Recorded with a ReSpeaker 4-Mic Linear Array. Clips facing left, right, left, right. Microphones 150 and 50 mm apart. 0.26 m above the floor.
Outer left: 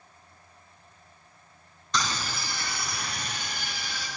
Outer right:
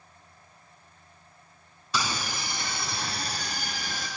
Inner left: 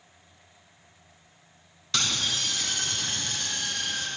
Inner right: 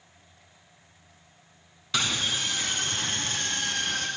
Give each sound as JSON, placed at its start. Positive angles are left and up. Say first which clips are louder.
{"t": 1.9, "sound": "a scream", "louder": "even, inner right 1 dB", "side_deg": -10, "distance_m": 3.0}